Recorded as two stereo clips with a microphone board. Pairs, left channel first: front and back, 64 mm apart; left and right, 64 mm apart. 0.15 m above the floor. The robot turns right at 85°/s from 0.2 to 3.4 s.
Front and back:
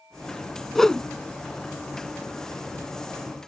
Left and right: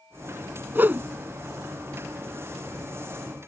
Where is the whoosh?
85° right; by 1.1 s 60° right.